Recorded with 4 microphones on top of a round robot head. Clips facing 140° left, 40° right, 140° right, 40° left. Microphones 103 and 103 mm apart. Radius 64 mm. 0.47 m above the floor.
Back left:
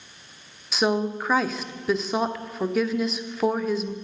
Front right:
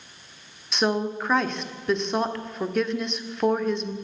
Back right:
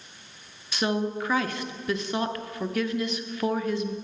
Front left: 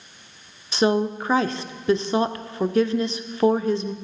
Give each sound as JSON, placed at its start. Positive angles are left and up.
{"t": 0.7, "sound": "a woman speaking", "azimuth_deg": 55, "distance_m": 0.8}